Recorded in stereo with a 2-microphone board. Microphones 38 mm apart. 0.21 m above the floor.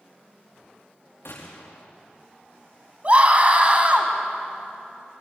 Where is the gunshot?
85° left, 4.5 m.